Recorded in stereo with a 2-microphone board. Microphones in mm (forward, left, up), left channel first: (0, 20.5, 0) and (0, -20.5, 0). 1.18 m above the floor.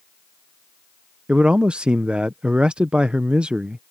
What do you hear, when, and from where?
1.3 s a man speaking: 25° right (ahead or behind)